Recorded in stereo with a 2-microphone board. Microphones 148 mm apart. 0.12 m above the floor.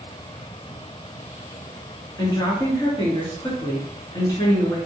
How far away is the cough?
I don't hear a cough.